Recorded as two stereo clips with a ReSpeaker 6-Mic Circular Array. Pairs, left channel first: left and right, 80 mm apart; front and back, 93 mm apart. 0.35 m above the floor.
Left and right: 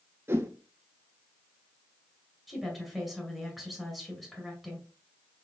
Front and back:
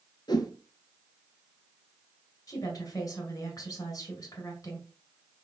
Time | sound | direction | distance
0.3 | a whoosh | 35° right | 0.8 m
2.5 | a woman speaking | straight ahead | 2.0 m